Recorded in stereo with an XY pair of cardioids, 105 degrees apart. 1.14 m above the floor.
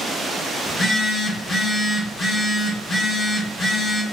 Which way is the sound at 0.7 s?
35° left.